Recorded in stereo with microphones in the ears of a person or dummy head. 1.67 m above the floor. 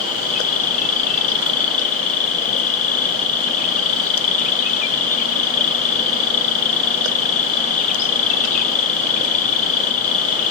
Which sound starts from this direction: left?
An insect, at 0.0 s.